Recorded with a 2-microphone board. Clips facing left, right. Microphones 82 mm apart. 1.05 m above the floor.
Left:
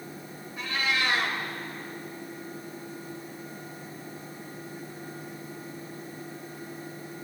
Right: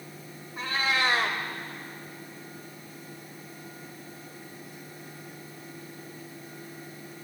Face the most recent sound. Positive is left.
turn(degrees=-35)  # may be behind; listen again after turning